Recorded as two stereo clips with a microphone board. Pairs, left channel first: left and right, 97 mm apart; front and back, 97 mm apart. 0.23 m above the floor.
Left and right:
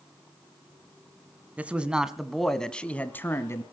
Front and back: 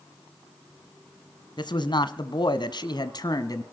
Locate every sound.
1.6 s a man speaking: 20° right, 1.7 m; by 3.6 s 35° left, 1.7 m